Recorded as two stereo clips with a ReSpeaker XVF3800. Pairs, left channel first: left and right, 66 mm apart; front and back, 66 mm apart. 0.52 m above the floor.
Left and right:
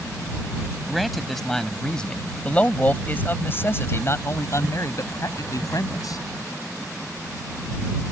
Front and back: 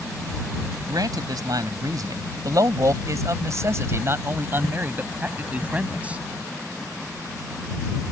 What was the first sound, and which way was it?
A man speaking, straight behind.